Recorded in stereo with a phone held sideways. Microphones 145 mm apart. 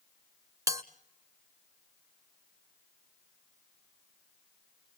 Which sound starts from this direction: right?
A bell, at 0.7 s.